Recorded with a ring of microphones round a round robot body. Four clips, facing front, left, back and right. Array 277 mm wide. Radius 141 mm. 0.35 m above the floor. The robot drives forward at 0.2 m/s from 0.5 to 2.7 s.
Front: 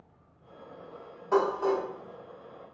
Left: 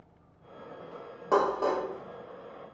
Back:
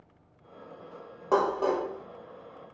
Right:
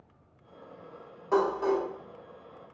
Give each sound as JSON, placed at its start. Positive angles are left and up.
{"t": 1.3, "sound": "dishes clattering", "azimuth_deg": 140, "distance_m": 0.9}